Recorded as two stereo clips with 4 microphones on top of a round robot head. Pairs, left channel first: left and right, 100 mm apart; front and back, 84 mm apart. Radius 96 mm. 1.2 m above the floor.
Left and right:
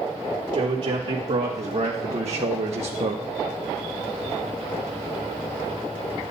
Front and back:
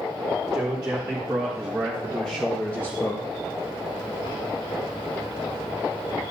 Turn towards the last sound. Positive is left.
turn(degrees=-65)